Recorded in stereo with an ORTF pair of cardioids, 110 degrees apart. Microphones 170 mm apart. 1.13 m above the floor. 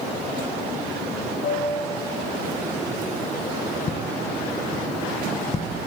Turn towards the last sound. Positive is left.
turn(degrees=40)